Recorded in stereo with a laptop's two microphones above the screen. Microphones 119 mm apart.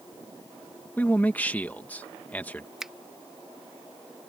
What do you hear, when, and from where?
1.0 s a man speaking: 15° left (ahead or behind)
2.8 s a finger snap: 5° right (ahead or behind)